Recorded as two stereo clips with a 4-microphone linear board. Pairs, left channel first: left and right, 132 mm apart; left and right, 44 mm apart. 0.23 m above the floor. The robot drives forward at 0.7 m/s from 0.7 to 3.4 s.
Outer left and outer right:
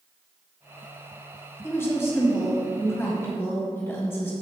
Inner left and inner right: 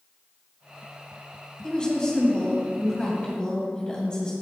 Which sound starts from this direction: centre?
A woman speaking, at 1.6 s.